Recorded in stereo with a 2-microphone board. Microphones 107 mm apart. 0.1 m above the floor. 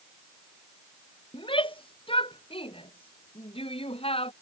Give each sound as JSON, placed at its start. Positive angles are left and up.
{"t": 1.3, "sound": "a shout", "side_deg": 50}